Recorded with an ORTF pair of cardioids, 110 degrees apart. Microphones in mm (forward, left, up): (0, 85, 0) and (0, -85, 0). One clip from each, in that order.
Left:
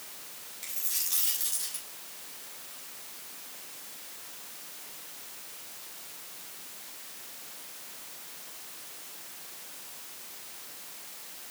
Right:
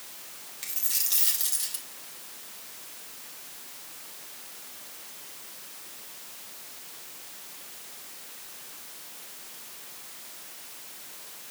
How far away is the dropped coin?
About 3.5 m.